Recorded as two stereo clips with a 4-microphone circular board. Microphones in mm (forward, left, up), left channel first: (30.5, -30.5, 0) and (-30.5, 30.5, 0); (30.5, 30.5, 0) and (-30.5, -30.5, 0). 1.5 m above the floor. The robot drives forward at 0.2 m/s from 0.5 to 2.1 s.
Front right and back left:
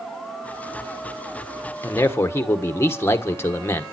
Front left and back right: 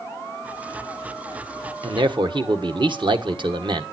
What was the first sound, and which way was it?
A man speaking, 105° right.